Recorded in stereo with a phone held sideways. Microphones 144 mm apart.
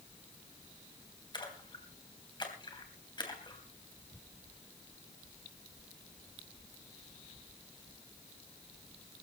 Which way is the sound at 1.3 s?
30° left (ahead or behind).